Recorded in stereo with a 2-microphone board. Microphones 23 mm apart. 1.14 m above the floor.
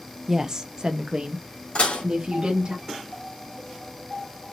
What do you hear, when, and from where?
0.3 s a woman speaking: 15° right (ahead or behind), 0.6 m; by 2.8 s 45° right (ahead or behind), 1.6 m
1.8 s dishes clattering: 60° left (ahead or behind), 1.9 m